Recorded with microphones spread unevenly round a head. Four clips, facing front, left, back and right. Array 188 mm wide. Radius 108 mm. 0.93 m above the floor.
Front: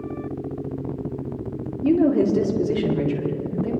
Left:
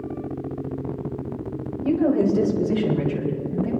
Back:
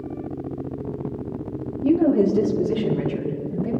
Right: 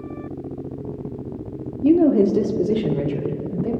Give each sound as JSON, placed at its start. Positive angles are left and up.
{"t": 1.8, "sound": "a woman speaking", "azimuth_deg": -95, "distance_m": 1.6}